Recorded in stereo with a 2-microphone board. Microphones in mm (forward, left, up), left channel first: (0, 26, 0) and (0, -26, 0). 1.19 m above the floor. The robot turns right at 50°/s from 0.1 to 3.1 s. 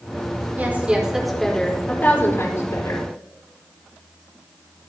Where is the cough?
No cough in this recording.